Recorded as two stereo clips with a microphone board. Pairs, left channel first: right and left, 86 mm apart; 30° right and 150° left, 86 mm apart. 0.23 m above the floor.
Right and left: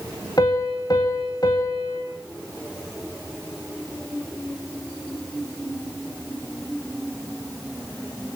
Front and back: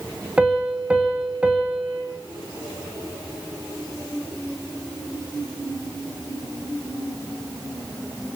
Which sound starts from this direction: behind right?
A piano, at 0.4 s.